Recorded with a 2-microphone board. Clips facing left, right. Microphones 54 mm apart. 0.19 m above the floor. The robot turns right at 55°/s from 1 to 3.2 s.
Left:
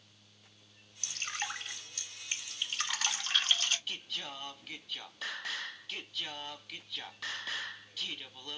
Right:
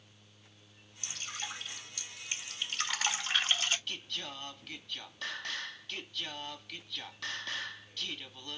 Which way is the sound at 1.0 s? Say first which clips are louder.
Left 4 dB; 60° left (ahead or behind).